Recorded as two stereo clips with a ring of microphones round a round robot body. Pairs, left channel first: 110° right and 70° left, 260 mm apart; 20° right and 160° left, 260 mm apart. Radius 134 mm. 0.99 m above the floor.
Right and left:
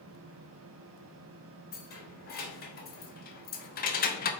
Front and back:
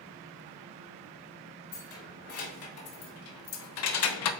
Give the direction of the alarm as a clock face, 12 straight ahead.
No alarm in this recording.